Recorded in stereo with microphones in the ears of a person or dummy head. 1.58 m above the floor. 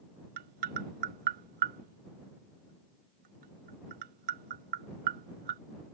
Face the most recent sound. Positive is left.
turn(degrees=-50)  # may be behind; listen again after turning